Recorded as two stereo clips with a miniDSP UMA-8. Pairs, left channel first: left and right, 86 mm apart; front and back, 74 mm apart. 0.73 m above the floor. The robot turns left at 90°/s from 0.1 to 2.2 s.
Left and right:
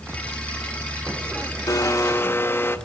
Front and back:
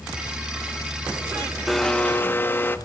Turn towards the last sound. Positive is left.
turn(degrees=45)